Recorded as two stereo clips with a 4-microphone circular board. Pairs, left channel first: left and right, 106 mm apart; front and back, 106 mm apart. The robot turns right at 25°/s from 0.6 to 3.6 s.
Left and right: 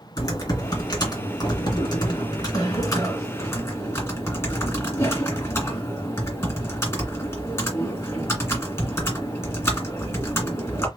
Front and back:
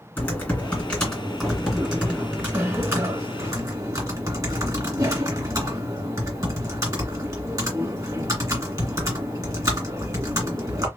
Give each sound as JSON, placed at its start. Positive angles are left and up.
{"t": 0.2, "sound": "typing on a keyboard", "azimuth_deg": 65, "distance_m": 2.0}